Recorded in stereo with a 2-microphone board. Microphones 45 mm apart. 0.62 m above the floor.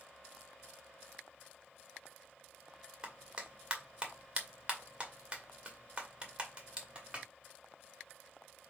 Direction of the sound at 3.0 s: 25° right (ahead or behind).